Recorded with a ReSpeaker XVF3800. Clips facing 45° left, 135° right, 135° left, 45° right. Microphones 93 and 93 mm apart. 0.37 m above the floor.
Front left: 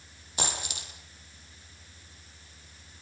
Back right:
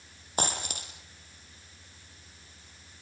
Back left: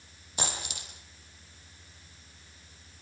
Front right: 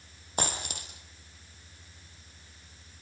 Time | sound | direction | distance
0.4 | a dropped coin | 90° right | 4.5 m